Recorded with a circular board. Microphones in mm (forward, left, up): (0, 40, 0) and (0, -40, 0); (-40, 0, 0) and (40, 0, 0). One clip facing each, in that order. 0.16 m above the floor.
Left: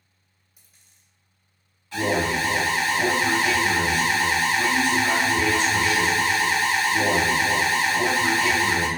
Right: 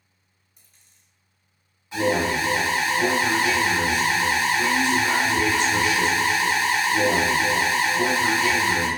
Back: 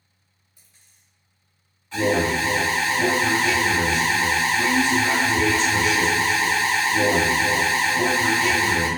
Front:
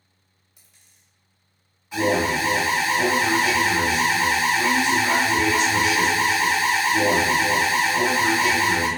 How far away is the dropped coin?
About 1.0 m.